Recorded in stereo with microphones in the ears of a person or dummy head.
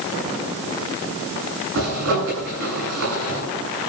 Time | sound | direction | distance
1.8 | a zipper | 70° right (ahead or behind) | 9.5 m